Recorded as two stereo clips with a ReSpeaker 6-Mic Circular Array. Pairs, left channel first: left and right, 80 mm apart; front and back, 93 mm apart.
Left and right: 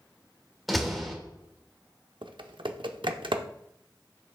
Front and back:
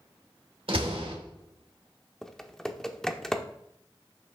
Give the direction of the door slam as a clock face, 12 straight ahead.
6 o'clock.